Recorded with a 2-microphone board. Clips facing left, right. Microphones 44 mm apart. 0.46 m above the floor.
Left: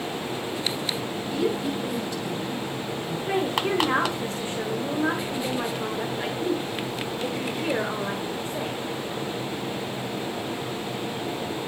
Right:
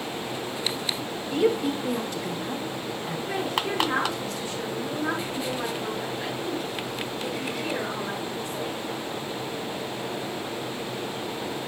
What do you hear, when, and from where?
1.3 s a woman speaking: 50° right (ahead or behind), 2.5 m
3.3 s a woman speaking: 30° left (ahead or behind), 1.8 m